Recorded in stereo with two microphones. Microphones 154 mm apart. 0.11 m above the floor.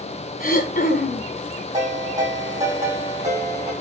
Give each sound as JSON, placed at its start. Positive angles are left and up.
{"t": 0.4, "sound": "throat clearing", "side_deg": 60, "distance_m": 0.9}
{"t": 1.7, "sound": "a ringtone", "side_deg": -50, "distance_m": 4.5}